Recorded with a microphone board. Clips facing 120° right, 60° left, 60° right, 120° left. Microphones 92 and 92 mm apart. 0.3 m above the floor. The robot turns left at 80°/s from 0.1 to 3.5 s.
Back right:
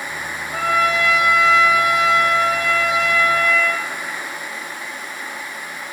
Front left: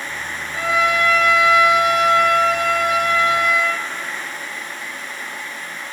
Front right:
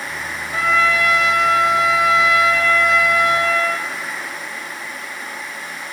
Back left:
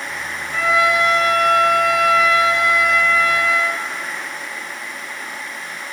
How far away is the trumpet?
About 0.7 m.